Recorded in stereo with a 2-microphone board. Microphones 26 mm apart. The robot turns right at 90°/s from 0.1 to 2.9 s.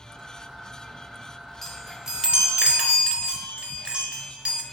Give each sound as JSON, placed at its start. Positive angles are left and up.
{"t": 1.6, "sound": "a chime", "azimuth_deg": 175, "distance_m": 1.0}